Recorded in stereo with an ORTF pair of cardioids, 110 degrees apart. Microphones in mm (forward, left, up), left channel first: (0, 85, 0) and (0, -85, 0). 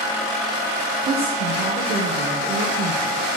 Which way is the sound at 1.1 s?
60° right.